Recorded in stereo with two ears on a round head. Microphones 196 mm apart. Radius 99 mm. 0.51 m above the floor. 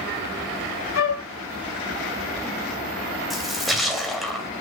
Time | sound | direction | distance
0.9 | a flute | 70° left (ahead or behind) | 1.1 m
3.3 | a splash | centre (ahead or behind) | 2.5 m